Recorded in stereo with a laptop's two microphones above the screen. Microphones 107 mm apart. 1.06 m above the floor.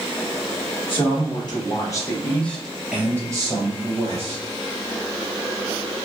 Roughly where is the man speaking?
Left.